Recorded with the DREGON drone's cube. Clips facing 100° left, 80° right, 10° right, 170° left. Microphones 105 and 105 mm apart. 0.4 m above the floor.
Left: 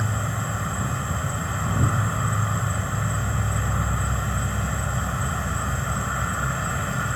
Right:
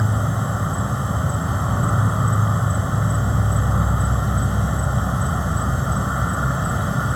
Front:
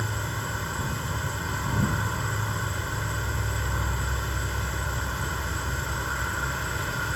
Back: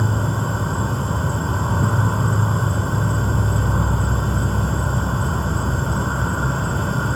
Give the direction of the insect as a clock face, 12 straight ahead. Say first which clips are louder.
Right 5 dB, back 9 dB; 5 o'clock.